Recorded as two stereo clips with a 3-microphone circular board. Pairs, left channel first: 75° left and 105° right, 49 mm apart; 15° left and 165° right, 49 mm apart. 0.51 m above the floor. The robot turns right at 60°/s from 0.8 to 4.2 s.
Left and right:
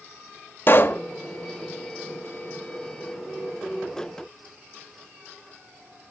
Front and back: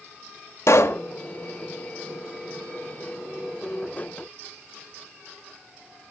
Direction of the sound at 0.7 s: 35° left.